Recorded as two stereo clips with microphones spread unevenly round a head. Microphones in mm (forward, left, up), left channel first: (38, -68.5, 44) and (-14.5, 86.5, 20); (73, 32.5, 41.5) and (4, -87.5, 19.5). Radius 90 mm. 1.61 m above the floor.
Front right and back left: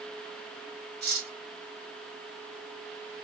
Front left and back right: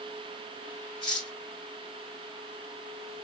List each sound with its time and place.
1.0 s cutlery clinking: 145° left, 2.5 m